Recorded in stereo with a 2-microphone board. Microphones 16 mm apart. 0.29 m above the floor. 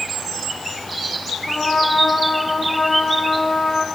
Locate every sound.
1.5 s a trumpet: 70° left (ahead or behind), 7.5 m